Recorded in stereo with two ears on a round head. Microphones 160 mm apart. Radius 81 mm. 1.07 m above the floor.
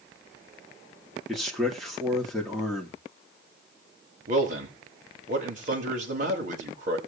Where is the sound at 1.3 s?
Centre (ahead or behind), 2.5 m.